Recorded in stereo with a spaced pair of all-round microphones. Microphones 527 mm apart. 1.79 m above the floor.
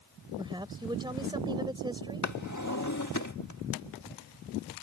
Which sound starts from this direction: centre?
A woman speaking, at 0.4 s.